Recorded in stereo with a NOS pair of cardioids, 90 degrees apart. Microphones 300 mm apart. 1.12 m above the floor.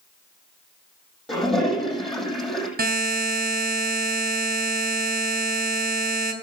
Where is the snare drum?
I don't hear a snare drum.